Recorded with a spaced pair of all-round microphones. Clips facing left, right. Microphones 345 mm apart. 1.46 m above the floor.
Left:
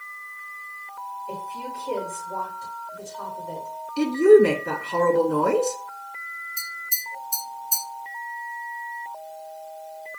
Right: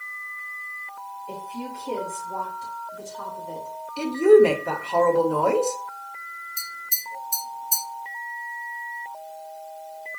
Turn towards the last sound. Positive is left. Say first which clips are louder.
# even
turn(degrees=-60)  # may be behind; listen again after turning